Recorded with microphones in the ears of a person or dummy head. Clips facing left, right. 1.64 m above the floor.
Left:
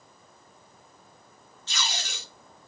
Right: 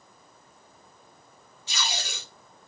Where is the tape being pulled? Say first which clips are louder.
Right 1 dB; 15° right (ahead or behind), 3 m.